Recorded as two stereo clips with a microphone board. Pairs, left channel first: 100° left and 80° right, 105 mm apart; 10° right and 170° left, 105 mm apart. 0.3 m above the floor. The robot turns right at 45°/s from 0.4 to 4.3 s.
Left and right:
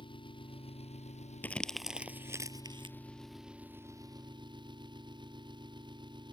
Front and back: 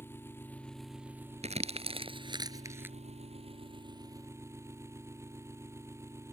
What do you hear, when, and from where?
0.0 s an engine running: 60° left; by 6.3 s 125° right
1.4 s crumpling: 175° left; by 3.0 s 115° right